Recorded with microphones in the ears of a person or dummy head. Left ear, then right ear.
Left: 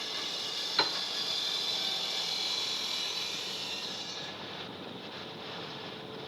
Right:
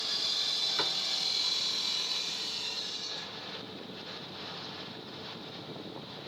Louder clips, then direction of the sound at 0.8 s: Left 1 dB; 35° left (ahead or behind).